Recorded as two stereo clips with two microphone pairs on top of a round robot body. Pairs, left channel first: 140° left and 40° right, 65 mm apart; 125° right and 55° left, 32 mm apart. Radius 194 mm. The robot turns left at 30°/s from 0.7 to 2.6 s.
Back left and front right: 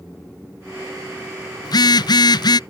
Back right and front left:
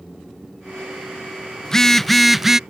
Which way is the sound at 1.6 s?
160° left.